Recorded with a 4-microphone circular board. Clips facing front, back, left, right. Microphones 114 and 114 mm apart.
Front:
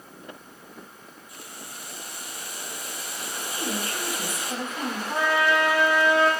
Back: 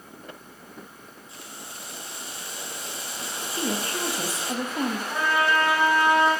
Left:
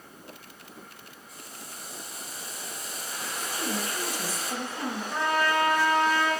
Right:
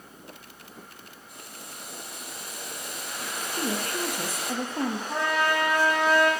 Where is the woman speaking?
125° right, 4 m.